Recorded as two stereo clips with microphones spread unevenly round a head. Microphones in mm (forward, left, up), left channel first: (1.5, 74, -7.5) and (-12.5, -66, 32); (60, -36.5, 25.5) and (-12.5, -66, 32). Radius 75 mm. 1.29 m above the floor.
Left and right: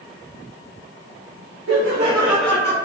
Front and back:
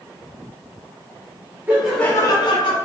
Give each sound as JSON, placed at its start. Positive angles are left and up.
{"t": 1.7, "sound": "laughter", "azimuth_deg": -90, "distance_m": 0.6}